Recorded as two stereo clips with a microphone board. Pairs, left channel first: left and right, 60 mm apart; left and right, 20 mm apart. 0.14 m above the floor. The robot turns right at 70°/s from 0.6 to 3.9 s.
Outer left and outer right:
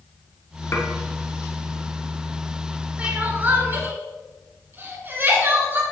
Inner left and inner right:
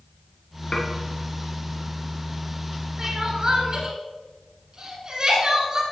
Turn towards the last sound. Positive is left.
turn(degrees=-35)  # may be behind; listen again after turning